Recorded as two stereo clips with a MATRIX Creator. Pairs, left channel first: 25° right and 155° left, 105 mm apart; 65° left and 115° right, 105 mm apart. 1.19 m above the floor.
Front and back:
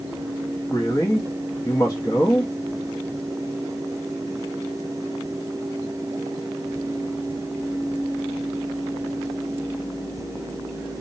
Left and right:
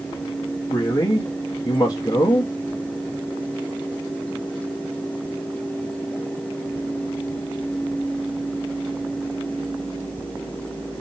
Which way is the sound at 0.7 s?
25° left.